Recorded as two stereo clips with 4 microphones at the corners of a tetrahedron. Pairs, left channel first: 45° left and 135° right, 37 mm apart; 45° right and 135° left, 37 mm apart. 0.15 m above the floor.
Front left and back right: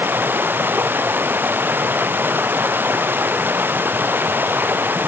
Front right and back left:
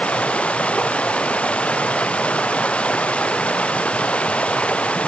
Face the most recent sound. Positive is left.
turn(degrees=-105)